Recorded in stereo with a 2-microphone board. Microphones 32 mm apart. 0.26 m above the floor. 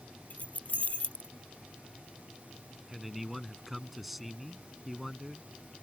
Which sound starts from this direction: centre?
A man speaking, at 2.9 s.